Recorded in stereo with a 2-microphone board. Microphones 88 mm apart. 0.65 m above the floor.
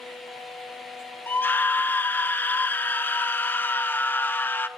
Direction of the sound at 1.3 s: 20° left (ahead or behind).